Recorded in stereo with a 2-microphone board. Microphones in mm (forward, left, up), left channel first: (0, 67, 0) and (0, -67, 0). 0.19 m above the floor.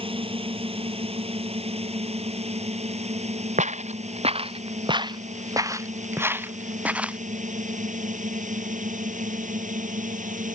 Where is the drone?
45° right (ahead or behind); by 10.6 s 75° right (ahead or behind).